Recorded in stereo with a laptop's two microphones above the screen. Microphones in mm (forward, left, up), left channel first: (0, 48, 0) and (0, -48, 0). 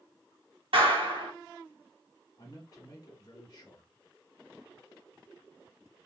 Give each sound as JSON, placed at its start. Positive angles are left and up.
{"t": 0.7, "sound": "a clap", "side_deg": -80, "distance_m": 1.2}
{"t": 2.4, "sound": "a man speaking", "side_deg": 45, "distance_m": 1.3}